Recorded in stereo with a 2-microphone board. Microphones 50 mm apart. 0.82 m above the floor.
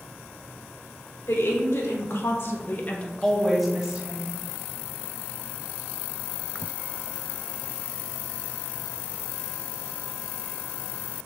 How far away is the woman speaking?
About 2.5 m.